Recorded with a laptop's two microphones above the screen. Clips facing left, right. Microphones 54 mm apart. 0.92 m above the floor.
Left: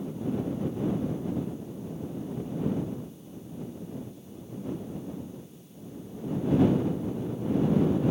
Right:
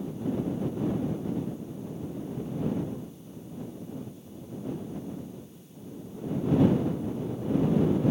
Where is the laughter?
I don't hear laughter.